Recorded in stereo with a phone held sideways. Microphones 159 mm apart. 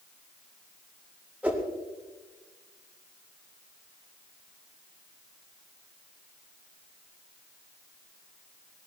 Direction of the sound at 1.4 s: 5° right (ahead or behind).